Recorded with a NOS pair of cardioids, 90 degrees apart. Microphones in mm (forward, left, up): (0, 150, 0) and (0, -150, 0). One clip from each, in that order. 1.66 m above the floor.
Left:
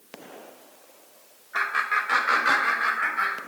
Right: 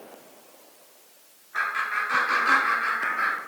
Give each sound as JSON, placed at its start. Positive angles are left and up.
{"t": 1.5, "sound": "laughter", "azimuth_deg": 35, "distance_m": 0.8}